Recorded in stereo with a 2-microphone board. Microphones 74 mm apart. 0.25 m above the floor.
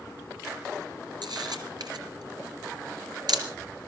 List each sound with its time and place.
1.2 s a camera shutter: 65° right (ahead or behind), 2.5 m